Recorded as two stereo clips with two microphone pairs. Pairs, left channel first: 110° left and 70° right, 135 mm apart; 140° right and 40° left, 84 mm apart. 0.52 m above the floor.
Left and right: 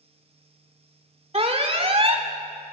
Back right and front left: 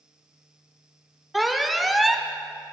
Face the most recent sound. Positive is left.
turn(degrees=-50)